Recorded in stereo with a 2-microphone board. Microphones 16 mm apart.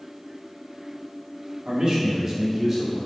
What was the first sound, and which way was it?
A man speaking, 45° right (ahead or behind).